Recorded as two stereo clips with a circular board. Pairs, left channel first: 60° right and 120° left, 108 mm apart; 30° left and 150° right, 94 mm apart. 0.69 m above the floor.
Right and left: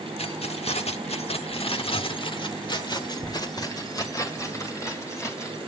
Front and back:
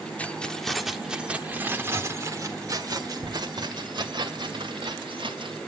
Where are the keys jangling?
45° right, 1.2 m; by 5.6 s 125° right, 3 m.